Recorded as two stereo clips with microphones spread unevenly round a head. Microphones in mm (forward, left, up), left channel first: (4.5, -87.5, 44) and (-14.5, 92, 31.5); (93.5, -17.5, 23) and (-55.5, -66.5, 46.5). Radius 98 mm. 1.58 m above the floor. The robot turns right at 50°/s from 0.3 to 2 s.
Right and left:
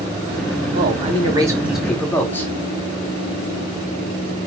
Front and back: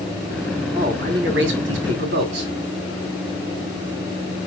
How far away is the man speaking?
About 3 m.